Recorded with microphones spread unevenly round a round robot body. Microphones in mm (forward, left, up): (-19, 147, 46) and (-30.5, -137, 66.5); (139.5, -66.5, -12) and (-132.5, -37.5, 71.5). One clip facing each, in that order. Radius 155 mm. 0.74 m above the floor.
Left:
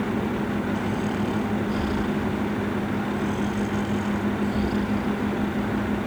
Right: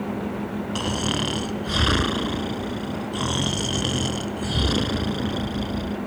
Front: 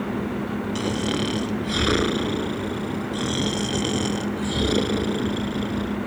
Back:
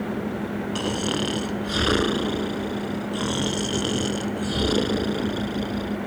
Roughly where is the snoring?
Right.